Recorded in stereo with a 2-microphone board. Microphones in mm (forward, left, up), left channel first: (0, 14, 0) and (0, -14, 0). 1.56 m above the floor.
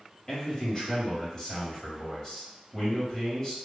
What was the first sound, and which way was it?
A man speaking, 20° left (ahead or behind).